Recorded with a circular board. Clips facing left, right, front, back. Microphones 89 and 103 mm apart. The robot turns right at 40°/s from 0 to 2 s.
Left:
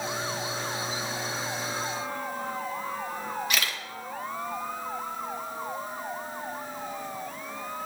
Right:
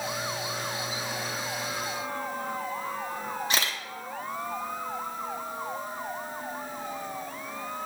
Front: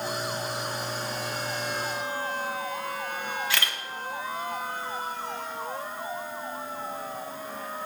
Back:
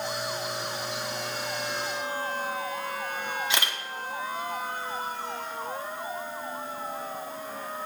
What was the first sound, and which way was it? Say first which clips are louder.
A camera shutter: right 1 dB, even; 125° right.